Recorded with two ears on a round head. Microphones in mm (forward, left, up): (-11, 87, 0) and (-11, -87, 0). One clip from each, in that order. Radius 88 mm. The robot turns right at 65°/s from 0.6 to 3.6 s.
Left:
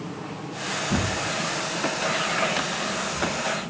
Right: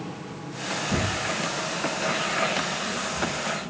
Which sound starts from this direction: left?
Tearing paper, at 0.9 s.